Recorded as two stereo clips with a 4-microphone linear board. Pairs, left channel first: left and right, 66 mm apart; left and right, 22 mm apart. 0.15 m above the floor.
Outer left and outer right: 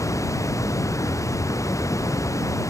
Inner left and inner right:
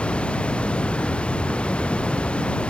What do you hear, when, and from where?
0.0 s running water: 50° left (ahead or behind)